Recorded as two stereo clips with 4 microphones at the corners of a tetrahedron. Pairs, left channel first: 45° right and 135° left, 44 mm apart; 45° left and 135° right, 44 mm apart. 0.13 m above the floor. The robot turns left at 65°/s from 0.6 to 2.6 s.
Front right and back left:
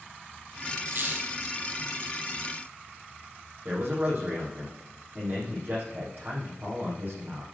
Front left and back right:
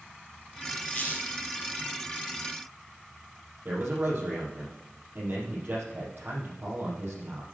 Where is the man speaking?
Straight behind, 5.5 m.